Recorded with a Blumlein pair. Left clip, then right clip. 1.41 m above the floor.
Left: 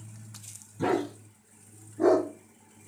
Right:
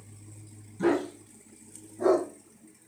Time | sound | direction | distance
0.8 | a dog barking | 5° left | 5.5 m